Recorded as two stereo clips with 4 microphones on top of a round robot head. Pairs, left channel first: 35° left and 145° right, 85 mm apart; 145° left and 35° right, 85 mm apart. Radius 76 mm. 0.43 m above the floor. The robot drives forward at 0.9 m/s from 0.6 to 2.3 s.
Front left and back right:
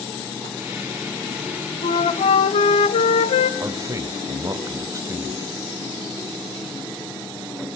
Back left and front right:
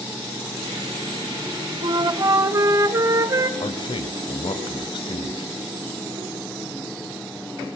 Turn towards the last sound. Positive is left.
turn(degrees=165)